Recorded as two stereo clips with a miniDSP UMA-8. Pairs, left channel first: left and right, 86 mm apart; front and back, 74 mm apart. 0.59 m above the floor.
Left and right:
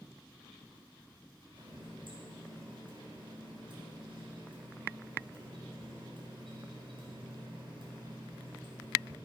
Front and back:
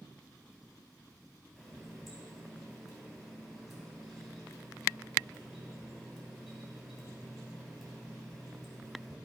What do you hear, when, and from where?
1.6 s a running tap: 90° right, 3 m